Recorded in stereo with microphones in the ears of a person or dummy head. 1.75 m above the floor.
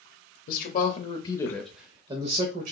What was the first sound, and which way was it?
A man speaking, 50° left (ahead or behind).